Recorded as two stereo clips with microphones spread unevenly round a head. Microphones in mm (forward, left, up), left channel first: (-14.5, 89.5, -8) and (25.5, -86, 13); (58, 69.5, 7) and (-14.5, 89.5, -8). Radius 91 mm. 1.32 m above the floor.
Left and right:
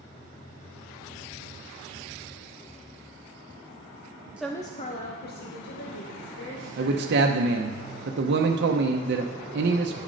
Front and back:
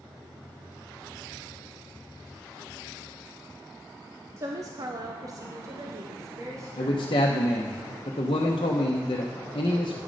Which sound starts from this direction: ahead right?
A man speaking, at 6.8 s.